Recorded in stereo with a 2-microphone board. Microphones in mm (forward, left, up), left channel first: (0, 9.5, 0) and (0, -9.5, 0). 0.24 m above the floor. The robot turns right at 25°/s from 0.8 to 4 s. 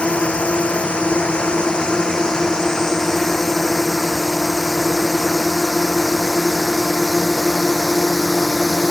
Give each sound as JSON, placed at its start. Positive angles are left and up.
{"t": 0.0, "sound": "a drone", "side_deg": 75}